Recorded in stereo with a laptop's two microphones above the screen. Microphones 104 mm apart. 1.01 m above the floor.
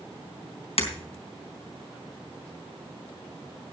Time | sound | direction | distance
0.8 | breaking glass | 70° left (ahead or behind) | 3.5 m